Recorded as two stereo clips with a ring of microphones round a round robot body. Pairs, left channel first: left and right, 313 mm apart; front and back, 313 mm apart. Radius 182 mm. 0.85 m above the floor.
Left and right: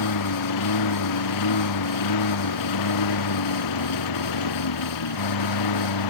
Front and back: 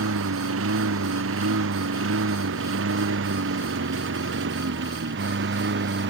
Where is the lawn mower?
125° left; by 6.1 s 120° left.